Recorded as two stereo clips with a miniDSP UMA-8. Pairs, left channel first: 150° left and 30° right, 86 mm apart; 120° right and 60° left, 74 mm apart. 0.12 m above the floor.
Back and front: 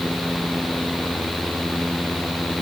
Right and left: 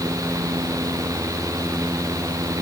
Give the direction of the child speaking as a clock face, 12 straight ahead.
No child speaking in this recording.